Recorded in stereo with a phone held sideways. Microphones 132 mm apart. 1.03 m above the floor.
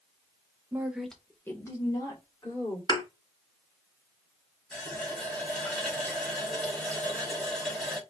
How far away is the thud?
About 1.0 m.